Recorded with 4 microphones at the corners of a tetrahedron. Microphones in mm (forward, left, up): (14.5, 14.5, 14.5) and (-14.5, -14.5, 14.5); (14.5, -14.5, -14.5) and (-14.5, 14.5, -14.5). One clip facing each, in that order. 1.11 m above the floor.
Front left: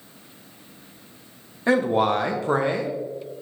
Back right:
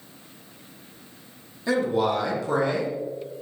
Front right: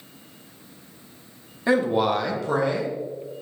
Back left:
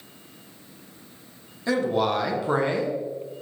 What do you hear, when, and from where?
1.7 s a man speaking: 10° left, 0.7 m; by 3.0 s 105° left, 0.8 m